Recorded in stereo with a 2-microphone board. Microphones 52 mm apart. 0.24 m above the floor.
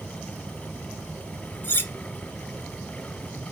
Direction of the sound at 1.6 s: 45° left (ahead or behind).